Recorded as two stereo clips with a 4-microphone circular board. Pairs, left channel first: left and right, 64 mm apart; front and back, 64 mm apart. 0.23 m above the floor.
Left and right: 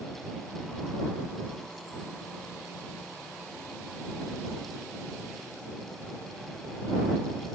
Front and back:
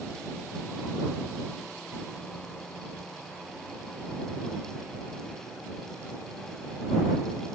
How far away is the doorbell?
No doorbell in this recording.